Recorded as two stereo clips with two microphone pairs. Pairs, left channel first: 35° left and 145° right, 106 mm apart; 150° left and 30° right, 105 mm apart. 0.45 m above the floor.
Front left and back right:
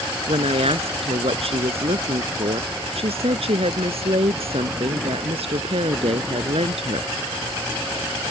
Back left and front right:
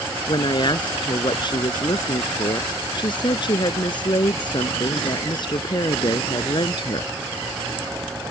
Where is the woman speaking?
165° right.